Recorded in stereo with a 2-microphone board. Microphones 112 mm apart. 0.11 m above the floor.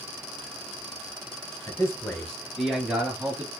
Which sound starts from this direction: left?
A man speaking, at 1.7 s.